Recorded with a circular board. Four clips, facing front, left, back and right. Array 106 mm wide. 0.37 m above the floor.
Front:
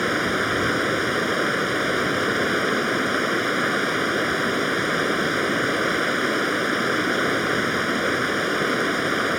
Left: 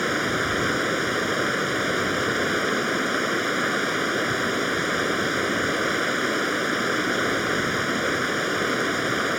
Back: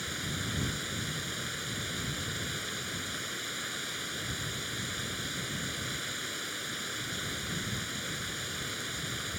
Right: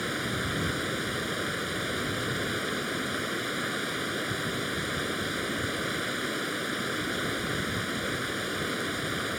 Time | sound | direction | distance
0.0 | running water | 30° left | ?